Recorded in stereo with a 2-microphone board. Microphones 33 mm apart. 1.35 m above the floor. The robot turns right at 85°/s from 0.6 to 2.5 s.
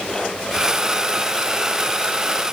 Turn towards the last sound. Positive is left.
No sound to turn to.